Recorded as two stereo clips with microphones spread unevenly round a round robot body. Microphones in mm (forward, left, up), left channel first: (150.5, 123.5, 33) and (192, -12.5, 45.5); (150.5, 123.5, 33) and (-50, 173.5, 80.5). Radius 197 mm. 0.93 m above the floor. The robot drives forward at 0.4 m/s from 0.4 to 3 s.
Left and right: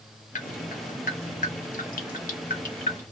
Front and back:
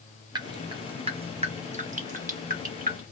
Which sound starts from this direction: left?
Dripping, at 0.3 s.